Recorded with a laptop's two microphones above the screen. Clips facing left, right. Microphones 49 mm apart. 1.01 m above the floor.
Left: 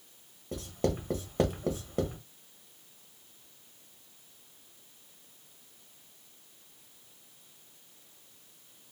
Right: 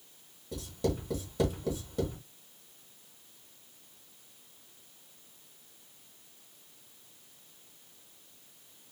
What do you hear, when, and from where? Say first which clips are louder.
0.5 s writing: left 1 dB; 40° left (ahead or behind), 1.2 m